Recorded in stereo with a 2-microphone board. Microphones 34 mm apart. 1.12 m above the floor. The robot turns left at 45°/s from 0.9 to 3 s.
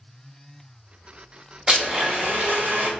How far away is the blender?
About 1.0 m.